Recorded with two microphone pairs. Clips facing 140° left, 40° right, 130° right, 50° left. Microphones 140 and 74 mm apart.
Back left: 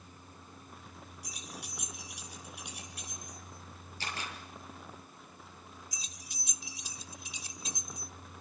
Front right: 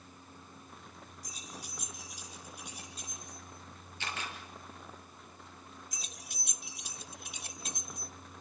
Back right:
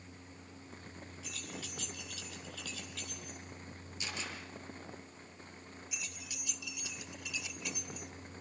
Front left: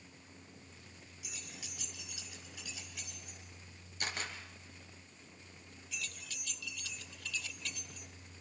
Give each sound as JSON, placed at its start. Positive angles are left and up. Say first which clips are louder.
{"t": 1.2, "sound": "keys jangling", "louder": "back left 1 dB, back right 5 dB", "azimuth_deg": 125, "distance_m": 4.5}
{"t": 4.0, "sound": "a camera shutter", "louder": "even, front left 2 dB", "azimuth_deg": 85, "distance_m": 6.0}
{"t": 5.9, "sound": "keys jangling", "louder": "front right 2 dB, front left 4 dB", "azimuth_deg": -60, "distance_m": 1.4}